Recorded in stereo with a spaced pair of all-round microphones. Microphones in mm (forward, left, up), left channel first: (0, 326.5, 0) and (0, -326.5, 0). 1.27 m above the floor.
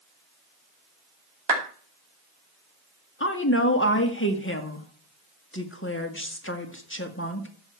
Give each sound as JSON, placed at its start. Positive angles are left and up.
{"t": 1.5, "sound": "a clap", "side_deg": -70, "distance_m": 3.0}
{"t": 3.2, "sound": "a woman speaking", "side_deg": 20, "distance_m": 1.6}